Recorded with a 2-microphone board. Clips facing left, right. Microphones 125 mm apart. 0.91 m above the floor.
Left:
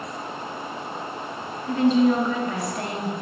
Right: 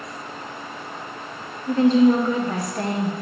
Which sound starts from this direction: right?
A woman speaking, at 1.7 s.